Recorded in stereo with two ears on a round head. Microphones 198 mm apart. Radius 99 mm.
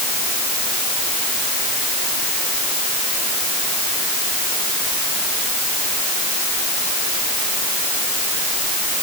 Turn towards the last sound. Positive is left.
No sound to turn to.